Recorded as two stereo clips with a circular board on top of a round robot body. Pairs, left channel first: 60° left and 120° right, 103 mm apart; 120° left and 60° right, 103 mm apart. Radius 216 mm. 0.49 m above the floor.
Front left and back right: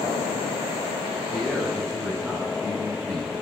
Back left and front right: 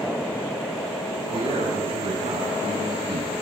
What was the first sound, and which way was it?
A man speaking, 50° right.